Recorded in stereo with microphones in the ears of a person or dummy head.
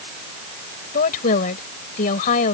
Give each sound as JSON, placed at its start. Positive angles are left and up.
{"t": 0.9, "sound": "a woman speaking", "side_deg": 50}